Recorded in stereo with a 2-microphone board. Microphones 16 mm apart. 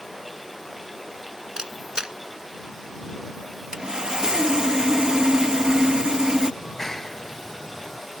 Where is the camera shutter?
55° right (ahead or behind).